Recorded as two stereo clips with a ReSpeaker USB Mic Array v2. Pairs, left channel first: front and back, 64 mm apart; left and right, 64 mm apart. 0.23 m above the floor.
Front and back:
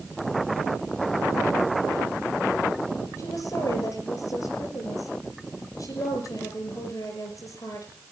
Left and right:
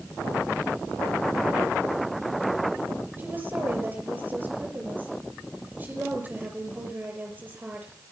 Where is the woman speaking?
30° right, 5.5 m.